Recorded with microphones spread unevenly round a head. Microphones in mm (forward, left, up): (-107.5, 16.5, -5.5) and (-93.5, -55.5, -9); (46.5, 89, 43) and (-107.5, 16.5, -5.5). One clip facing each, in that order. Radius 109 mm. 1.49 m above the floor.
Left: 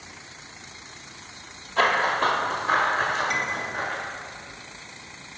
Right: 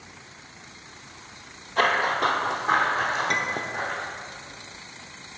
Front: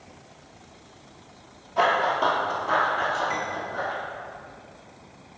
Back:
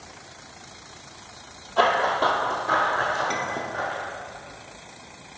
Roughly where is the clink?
Right.